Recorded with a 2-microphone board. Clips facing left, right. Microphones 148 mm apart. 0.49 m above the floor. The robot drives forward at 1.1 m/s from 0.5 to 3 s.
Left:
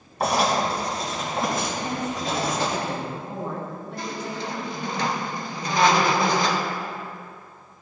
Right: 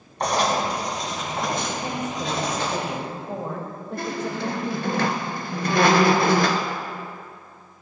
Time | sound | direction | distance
0.2 | writing | 5° left (ahead or behind) | 3 m
1.8 | a woman speaking | 60° right (ahead or behind) | 2 m
4.0 | a squeak | 65° right (ahead or behind) | 1.0 m